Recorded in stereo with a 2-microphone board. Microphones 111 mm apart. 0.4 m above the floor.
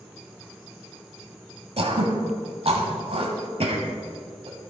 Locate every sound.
1.8 s throat clearing: 60° right (ahead or behind), 1.1 m